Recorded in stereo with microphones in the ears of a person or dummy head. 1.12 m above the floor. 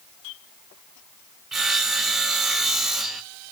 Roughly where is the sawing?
Centre.